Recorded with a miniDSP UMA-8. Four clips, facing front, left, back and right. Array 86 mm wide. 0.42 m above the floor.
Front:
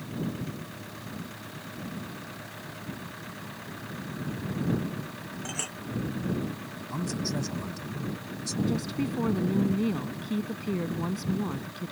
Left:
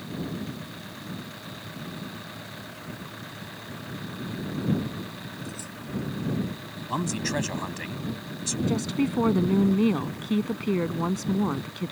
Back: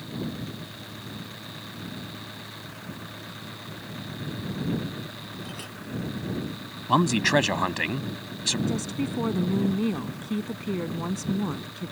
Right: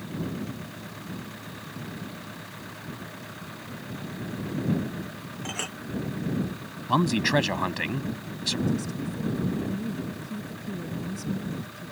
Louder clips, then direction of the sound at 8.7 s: Left 4 dB, even; 100° left.